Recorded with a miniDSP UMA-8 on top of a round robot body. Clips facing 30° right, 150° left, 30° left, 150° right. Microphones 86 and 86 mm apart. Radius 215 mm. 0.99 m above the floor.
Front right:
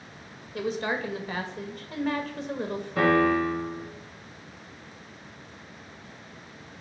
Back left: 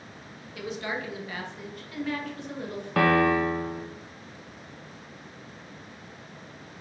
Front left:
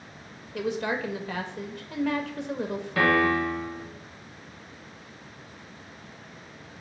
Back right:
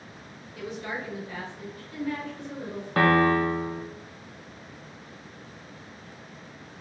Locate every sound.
0.5 s a woman speaking: 25° left, 1.5 m
3.0 s a piano: 165° left, 1.2 m